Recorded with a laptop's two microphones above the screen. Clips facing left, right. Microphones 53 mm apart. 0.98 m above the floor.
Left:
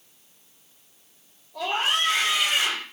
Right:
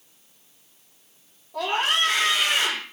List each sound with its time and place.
1.5 s a scream: 45° right (ahead or behind), 5 m